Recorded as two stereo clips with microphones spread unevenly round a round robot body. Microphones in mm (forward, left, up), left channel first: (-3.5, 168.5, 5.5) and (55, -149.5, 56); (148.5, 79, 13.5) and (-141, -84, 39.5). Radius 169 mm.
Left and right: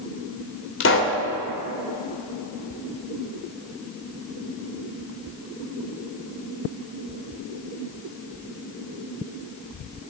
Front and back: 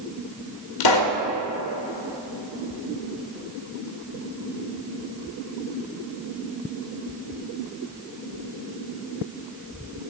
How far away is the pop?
About 1.7 m.